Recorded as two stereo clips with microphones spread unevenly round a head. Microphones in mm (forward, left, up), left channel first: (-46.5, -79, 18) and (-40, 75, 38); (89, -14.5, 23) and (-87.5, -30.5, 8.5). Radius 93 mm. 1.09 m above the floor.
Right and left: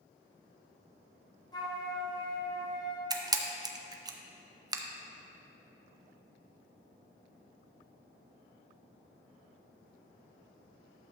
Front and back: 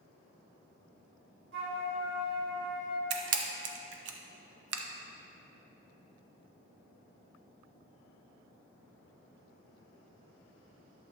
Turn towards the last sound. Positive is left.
turn(degrees=155)